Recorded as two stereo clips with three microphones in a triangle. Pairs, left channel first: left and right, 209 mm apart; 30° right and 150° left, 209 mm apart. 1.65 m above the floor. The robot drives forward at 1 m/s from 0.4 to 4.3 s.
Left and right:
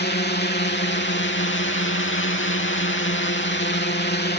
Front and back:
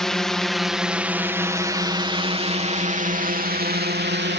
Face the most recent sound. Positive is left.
turn(degrees=120)